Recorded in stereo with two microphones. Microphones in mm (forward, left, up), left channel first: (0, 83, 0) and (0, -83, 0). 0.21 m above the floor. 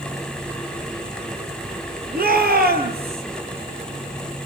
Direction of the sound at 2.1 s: 65° right (ahead or behind).